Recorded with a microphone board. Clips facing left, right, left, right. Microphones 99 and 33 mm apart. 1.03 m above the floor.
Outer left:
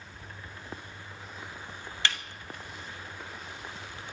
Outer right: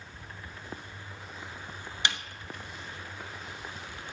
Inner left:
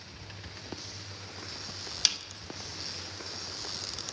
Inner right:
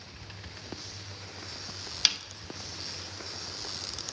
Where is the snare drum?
20° right (ahead or behind), 0.9 m.